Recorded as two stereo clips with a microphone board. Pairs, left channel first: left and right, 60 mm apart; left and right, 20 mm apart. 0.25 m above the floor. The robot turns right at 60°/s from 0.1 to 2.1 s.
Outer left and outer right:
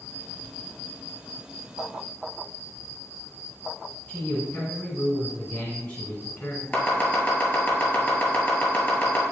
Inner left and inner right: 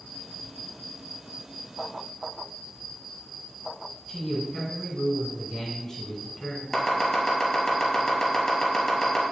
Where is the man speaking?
10° left (ahead or behind), 2.5 m.